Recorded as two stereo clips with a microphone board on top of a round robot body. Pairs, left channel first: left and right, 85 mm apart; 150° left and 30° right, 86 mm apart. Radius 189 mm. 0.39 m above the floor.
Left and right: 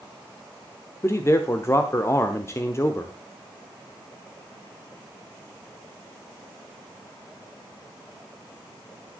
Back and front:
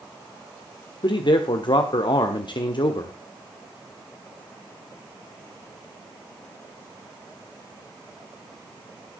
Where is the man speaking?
145° left, 1.4 m.